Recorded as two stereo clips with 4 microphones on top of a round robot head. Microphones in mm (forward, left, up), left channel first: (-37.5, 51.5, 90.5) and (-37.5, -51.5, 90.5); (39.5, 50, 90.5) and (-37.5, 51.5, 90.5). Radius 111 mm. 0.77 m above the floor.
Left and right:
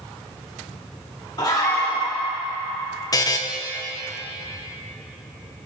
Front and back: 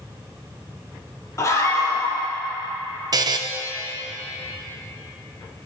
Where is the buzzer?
145° left, 0.8 m.